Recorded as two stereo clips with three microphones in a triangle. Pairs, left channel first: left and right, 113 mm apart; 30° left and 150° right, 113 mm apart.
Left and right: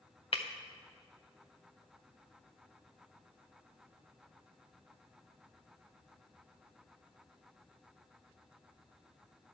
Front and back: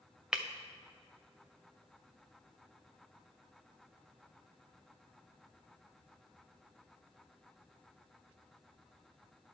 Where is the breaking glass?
125° left, 0.9 m.